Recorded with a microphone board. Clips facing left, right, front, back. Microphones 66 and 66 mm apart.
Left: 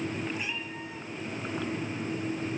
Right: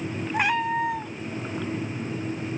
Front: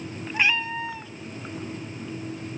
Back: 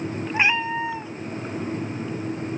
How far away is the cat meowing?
About 0.6 m.